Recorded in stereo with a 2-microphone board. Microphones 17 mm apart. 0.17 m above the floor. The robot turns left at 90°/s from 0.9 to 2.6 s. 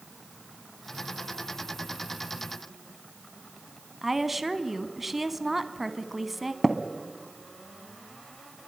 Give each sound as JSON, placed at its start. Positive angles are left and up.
{"t": 4.0, "sound": "a woman speaking", "side_deg": -5, "distance_m": 1.1}
{"t": 6.6, "sound": "tapping", "side_deg": -10, "distance_m": 1.3}